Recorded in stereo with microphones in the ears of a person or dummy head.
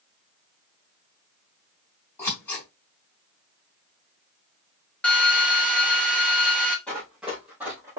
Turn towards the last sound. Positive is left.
turn(degrees=-20)  # may be behind; listen again after turning